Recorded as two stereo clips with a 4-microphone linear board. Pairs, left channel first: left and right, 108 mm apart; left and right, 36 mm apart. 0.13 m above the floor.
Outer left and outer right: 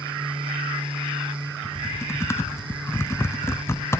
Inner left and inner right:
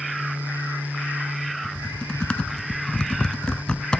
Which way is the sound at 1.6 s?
25° left (ahead or behind).